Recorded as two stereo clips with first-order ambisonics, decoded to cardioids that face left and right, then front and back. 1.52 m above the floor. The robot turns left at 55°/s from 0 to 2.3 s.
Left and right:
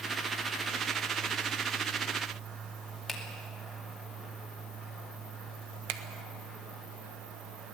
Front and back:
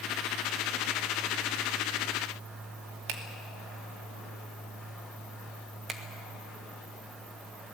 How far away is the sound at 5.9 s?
About 1.4 m.